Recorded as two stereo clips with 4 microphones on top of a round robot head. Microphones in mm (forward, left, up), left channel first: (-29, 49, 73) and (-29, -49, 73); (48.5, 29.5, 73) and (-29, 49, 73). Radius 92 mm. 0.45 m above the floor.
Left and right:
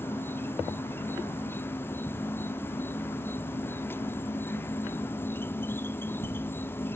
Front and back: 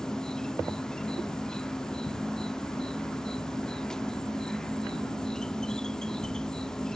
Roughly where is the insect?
Ahead left.